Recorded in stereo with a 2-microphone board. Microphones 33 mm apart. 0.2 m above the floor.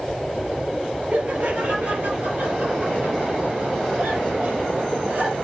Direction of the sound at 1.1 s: 50° right (ahead or behind).